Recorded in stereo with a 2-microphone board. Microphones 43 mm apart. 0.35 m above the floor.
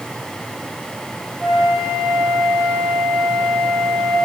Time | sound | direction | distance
1.4 | a flute | 15° right (ahead or behind) | 3.5 m